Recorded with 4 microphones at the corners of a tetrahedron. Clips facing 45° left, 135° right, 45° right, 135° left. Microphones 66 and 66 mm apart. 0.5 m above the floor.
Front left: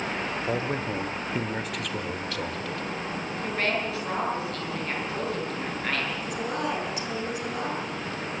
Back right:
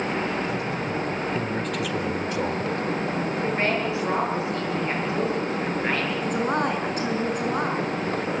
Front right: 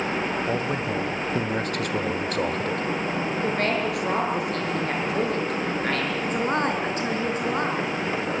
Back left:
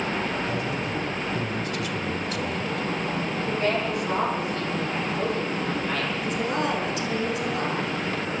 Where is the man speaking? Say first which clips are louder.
Back right 1 dB, front right 2 dB; straight ahead, 2.5 m; by 2.8 s 85° right, 2 m.